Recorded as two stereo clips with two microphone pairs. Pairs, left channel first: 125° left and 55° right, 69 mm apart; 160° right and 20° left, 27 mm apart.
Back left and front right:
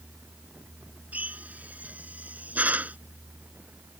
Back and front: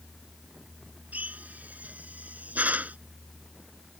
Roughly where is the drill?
Ahead.